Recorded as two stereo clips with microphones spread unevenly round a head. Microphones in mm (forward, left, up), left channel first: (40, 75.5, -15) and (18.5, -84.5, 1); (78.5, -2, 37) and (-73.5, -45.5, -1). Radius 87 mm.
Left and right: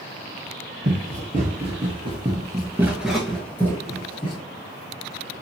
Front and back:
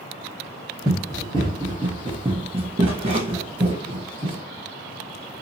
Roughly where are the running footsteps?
Right.